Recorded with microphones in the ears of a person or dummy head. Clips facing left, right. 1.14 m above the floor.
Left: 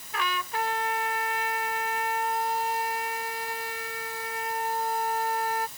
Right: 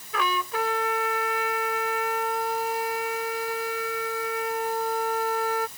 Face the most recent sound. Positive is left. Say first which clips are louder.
# right 4 dB
turn(degrees=-85)